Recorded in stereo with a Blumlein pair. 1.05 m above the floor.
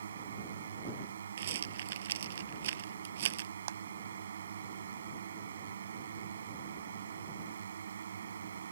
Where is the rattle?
60° right.